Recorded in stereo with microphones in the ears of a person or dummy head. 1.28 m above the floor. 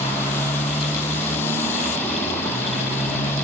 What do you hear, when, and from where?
0.0 s a motorcycle: 15° left (ahead or behind)